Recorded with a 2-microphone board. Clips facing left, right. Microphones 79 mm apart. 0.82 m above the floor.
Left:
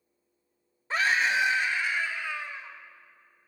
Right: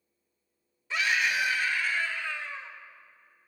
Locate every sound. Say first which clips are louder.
0.9 s a scream: left 3 dB; 40° left (ahead or behind), 0.6 m; by 2.8 s 10° left (ahead or behind), 1.5 m